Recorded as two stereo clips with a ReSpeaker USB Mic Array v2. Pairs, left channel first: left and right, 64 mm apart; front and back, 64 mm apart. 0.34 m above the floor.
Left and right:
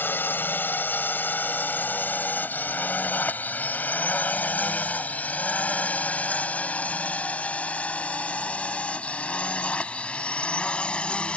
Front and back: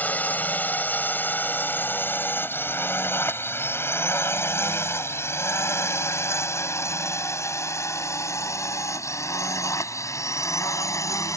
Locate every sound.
0.0 s a drone: 50° left; by 11.4 s 20° left